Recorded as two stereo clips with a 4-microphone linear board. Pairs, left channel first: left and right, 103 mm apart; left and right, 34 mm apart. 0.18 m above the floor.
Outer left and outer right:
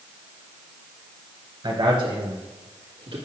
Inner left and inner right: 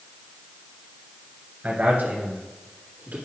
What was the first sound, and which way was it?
A man speaking, 50° right (ahead or behind).